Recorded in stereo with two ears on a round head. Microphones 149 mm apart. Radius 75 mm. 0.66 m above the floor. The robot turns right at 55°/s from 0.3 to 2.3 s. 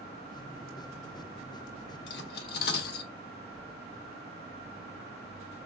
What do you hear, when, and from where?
2.1 s cutlery clinking: 75° left (ahead or behind), 1.0 m; by 3.1 s 70° left (ahead or behind), 1.0 m